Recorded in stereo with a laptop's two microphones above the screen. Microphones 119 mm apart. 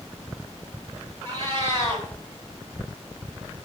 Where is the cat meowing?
40° right (ahead or behind), 2 m.